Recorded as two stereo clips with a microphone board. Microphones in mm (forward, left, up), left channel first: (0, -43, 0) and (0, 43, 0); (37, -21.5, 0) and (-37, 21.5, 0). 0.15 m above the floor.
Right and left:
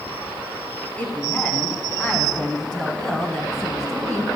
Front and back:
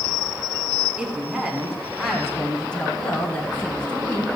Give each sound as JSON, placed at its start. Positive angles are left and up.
{"t": 1.0, "sound": "a woman speaking", "azimuth_deg": -145, "distance_m": 1.7}